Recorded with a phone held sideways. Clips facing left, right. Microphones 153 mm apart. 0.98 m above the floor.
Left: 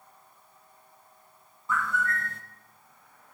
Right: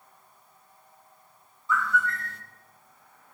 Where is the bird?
50° left (ahead or behind), 1.3 m.